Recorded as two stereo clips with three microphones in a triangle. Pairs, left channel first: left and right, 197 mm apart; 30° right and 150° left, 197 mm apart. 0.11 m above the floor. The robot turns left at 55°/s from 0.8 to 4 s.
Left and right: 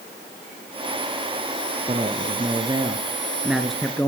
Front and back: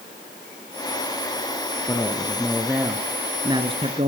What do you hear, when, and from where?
1.9 s a man speaking: 80° right, 1.5 m; by 4.1 s 160° left, 1.5 m